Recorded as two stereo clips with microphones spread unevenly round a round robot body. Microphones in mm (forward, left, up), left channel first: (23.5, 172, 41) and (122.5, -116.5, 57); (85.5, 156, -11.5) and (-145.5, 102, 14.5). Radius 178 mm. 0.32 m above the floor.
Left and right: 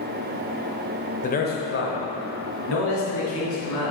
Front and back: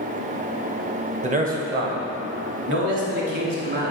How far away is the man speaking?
About 1.0 m.